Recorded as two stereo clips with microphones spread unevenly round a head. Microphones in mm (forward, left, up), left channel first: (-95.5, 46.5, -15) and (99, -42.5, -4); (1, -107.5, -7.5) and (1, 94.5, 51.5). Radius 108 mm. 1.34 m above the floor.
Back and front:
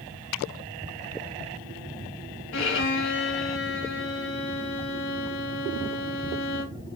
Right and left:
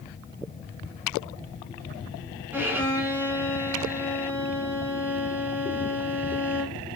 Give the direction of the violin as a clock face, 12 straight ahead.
7 o'clock.